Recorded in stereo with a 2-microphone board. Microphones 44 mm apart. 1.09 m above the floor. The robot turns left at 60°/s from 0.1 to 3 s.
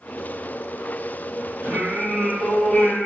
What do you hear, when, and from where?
1.6 s singing: 125° right, 1.7 m; by 3.1 s 150° left, 1.7 m